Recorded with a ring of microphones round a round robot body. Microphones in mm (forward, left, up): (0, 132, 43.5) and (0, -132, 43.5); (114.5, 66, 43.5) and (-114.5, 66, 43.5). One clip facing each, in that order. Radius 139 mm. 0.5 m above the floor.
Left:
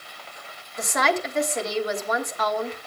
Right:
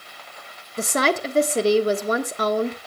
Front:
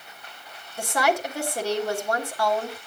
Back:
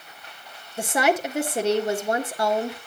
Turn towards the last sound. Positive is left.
turn(degrees=-120)